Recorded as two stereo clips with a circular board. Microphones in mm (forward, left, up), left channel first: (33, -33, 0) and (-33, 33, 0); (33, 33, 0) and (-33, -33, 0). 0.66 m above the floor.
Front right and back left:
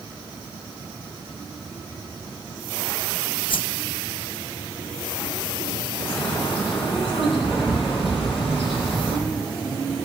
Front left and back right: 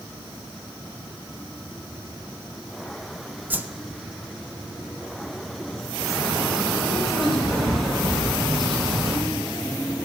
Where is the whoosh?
65° right, 0.5 m.